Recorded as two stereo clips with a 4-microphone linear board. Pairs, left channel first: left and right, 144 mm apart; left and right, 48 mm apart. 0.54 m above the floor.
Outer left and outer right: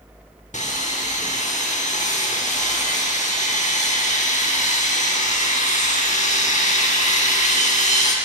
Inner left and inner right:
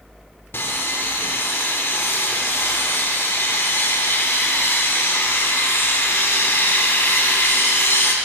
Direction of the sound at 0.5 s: 55° left (ahead or behind).